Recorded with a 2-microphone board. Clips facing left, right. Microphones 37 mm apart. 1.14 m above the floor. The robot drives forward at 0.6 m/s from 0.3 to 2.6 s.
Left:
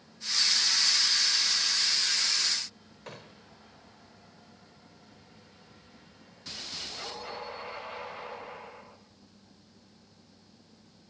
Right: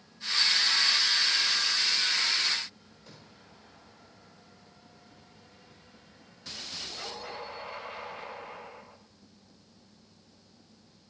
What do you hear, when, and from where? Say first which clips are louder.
3.1 s a gunshot: left 8 dB; 55° left (ahead or behind), 2 m